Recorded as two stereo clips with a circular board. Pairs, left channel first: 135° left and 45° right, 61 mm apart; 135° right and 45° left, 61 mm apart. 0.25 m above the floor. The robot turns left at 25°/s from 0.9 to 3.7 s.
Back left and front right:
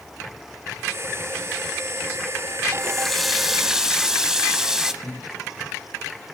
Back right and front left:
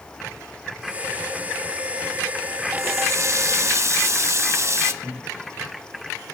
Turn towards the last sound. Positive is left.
turn(degrees=135)